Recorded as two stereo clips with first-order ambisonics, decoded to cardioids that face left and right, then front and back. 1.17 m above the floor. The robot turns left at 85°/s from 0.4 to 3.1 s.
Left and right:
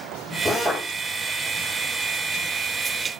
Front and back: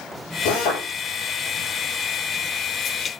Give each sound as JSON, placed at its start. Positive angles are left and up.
{"t": 0.5, "sound": "a drill", "azimuth_deg": -5, "distance_m": 9.5}